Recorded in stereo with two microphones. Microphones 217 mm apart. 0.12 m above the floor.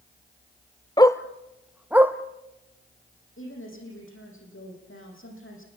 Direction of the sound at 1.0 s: 20° left (ahead or behind).